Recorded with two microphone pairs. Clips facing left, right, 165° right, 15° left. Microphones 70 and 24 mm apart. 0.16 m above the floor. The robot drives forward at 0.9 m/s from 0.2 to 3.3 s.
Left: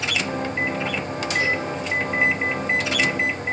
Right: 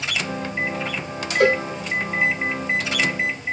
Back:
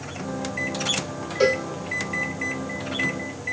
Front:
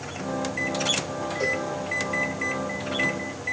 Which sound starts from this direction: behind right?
A cowbell, at 1.4 s.